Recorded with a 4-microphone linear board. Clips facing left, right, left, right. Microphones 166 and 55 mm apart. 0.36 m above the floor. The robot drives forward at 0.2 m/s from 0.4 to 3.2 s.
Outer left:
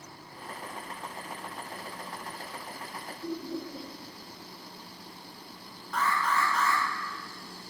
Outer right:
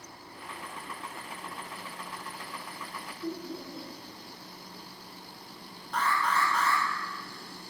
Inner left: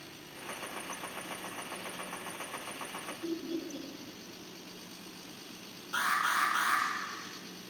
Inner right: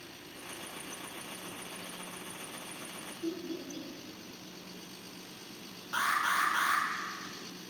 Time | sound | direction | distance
3.2 | laughter | 5° left (ahead or behind) | 0.9 m
5.9 | an alarm | 30° right (ahead or behind) | 0.9 m